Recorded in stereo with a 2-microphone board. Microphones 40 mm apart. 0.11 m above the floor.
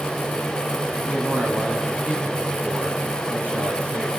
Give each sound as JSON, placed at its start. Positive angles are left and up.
{"t": 1.0, "sound": "a man speaking", "side_deg": -50, "distance_m": 6.5}